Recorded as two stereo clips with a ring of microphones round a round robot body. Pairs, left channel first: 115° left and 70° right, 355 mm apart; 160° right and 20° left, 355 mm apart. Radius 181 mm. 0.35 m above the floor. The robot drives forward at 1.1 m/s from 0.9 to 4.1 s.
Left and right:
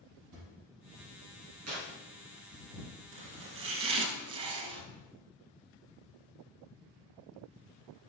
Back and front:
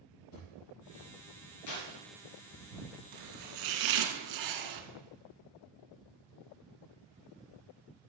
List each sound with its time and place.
0.3 s a drawer: 110° right, 3.5 m
1.7 s tearing paper: 115° right, 3 m; by 1.9 s 120° right, 3 m
3.1 s chopping: 10° right, 2.5 m; by 4.8 s 15° right, 1.4 m